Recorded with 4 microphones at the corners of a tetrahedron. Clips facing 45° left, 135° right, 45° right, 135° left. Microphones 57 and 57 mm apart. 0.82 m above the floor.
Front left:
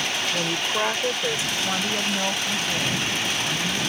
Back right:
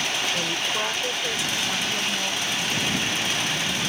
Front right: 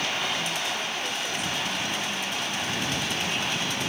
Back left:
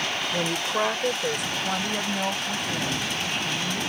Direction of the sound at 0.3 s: 125° left.